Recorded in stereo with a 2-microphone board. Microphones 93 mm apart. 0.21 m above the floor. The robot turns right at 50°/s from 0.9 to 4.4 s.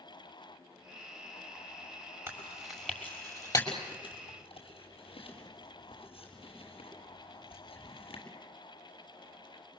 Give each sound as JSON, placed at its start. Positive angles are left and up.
{"t": 2.3, "sound": "chewing", "side_deg": -20, "distance_m": 6.5}